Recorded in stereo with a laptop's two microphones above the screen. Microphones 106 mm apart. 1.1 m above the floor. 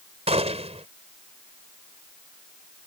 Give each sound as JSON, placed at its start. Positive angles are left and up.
{"t": 0.3, "sound": "a gunshot", "side_deg": -80}